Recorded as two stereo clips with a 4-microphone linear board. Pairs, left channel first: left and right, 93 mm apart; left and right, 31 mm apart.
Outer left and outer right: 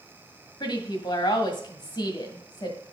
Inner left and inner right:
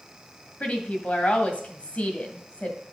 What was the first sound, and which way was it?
A woman speaking, 55° left (ahead or behind).